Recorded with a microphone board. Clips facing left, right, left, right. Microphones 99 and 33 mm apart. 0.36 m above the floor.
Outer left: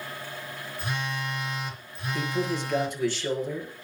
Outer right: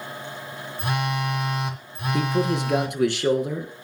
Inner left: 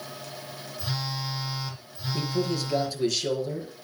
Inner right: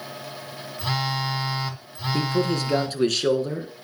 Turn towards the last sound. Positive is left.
turn(degrees=-70)  # may be behind; listen again after turning